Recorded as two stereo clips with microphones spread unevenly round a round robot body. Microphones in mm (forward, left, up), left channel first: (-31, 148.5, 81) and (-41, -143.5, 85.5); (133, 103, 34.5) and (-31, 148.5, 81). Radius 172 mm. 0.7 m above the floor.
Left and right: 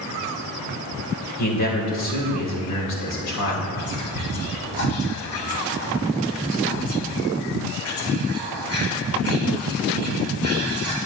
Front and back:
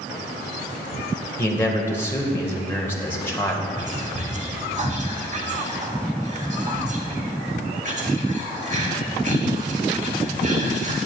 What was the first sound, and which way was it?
A man speaking, 60° left.